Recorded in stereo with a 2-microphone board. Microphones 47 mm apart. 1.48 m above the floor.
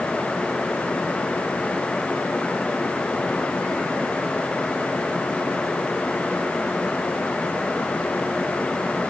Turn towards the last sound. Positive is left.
No sound to turn to.